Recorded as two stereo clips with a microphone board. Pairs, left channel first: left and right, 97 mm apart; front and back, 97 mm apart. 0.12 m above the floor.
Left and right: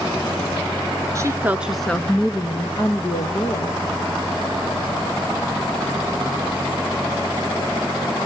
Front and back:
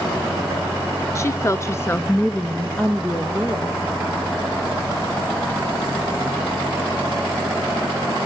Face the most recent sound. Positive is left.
turn(degrees=95)